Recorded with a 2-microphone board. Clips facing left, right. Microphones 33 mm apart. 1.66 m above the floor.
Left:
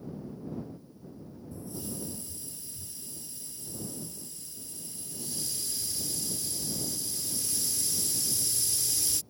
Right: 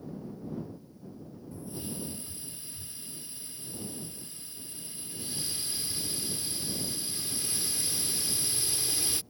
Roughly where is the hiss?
Right.